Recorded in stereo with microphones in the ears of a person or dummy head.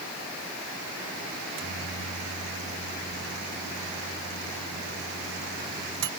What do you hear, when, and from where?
1.4 s a microwave: 65° right (ahead or behind)